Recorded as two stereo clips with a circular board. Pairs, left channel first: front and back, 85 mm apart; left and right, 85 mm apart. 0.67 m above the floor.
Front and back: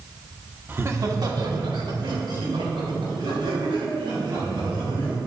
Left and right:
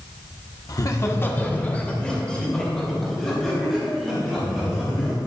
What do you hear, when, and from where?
0.7 s laughter: 120° left, 1.2 m; by 5.2 s 175° right, 6.5 m